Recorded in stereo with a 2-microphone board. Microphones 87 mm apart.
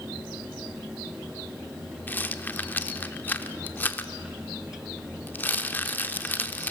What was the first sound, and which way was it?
A rattle, 20° left (ahead or behind).